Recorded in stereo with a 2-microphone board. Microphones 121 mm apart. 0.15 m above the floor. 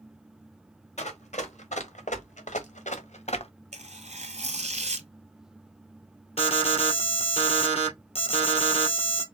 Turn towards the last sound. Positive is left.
turn(degrees=55)  # may be behind; listen again after turning